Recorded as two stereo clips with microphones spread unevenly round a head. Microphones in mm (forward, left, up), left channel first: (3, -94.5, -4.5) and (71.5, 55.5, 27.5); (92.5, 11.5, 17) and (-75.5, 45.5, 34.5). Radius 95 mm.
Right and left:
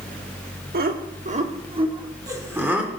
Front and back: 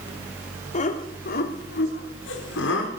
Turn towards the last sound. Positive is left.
turn(degrees=-20)